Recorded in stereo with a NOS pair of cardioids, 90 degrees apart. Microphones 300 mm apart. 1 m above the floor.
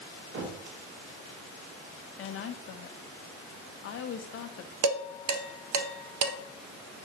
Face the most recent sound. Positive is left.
turn(degrees=-70)